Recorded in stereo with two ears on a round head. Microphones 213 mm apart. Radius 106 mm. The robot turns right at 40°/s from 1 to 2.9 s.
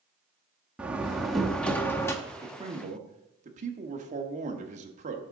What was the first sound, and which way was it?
A door slam, 5° right (ahead or behind).